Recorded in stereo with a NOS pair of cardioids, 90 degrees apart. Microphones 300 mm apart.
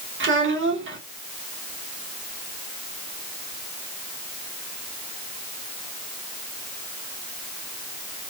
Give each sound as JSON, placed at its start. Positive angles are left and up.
{"t": 0.2, "sound": "a child speaking", "azimuth_deg": -40, "distance_m": 1.9}